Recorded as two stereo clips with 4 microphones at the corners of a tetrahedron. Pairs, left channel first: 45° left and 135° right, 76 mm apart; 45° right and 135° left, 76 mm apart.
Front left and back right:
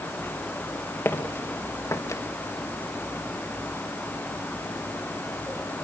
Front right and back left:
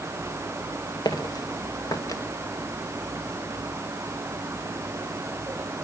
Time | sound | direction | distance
1.1 | footsteps | 15° right | 2.5 m